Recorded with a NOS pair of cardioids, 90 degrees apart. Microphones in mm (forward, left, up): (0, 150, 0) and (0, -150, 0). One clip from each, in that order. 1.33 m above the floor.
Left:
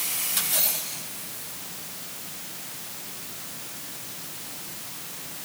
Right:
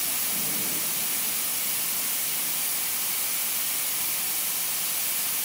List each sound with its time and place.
Only background noise.